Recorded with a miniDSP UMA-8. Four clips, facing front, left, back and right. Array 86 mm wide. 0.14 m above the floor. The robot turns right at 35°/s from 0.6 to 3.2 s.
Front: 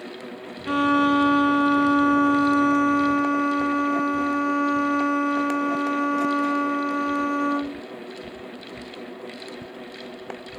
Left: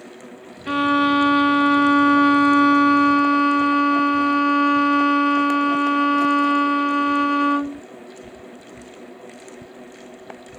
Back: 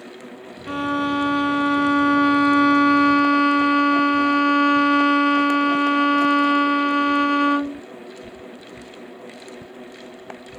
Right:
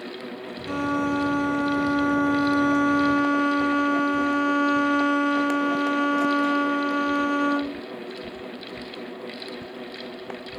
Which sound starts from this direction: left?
A violin, at 0.7 s.